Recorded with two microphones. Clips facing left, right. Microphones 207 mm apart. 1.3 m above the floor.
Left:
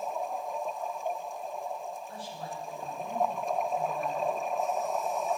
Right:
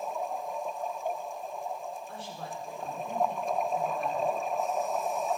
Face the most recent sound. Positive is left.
turn(degrees=-85)